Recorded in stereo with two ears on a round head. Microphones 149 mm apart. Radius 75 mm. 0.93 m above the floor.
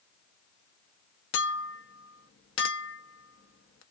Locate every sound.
1.3 s a clink: 85° left, 0.7 m